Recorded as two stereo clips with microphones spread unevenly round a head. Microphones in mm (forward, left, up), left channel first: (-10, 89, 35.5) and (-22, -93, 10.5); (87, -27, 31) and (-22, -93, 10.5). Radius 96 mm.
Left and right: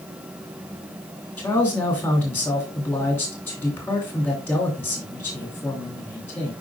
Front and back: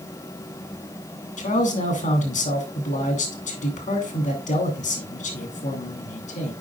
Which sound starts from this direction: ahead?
A man speaking, at 1.4 s.